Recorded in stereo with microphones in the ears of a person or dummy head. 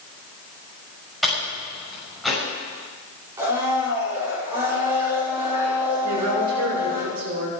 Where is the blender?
20° right (ahead or behind), 6 m.